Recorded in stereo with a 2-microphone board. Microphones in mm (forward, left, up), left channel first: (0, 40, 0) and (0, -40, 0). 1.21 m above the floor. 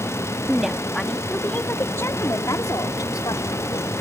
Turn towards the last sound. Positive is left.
turn(degrees=60)  # may be behind; listen again after turning